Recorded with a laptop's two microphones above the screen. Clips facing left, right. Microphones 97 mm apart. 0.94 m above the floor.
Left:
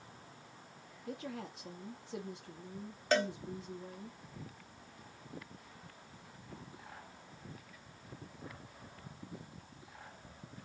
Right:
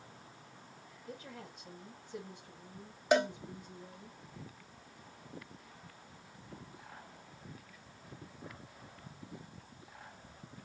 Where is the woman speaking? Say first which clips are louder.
Left 5 dB; 80° left, 1.4 m.